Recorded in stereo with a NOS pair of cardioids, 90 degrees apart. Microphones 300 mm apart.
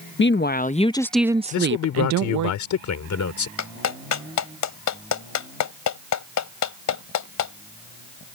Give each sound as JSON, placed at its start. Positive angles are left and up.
{"t": 0.2, "sound": "a woman speaking", "azimuth_deg": 40}
{"t": 1.5, "sound": "a man speaking", "azimuth_deg": 70}
{"t": 3.6, "sound": "a clap", "azimuth_deg": 70}